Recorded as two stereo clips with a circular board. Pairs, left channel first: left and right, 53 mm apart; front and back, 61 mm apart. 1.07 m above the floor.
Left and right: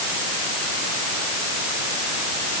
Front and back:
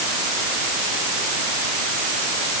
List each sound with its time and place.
Only background noise.